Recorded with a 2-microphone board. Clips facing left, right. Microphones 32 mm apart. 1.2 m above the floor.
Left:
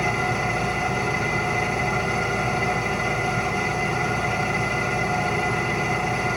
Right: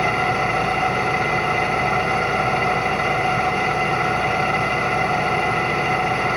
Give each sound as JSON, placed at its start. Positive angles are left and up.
{"t": 0.0, "sound": "an engine running", "side_deg": -30, "distance_m": 0.7}